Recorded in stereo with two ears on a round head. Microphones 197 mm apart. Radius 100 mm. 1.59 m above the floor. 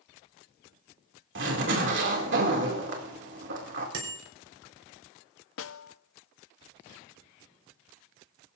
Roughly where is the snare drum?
Left.